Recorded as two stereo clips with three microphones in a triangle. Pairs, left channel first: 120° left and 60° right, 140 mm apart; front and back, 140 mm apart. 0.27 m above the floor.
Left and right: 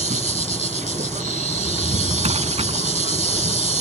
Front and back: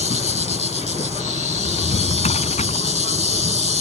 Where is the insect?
35° right.